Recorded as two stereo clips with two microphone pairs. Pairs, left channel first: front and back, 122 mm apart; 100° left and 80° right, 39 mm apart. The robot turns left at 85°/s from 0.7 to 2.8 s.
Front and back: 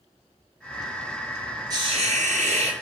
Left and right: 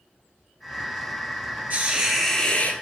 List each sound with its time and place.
1.7 s a hiss: 120° right, 2 m; by 2.7 s 150° left, 2 m